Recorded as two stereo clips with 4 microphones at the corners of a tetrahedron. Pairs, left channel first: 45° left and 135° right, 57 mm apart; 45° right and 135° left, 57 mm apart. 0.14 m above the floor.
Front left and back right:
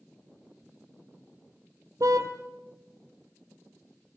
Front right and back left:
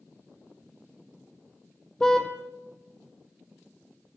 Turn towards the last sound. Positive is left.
turn(degrees=-125)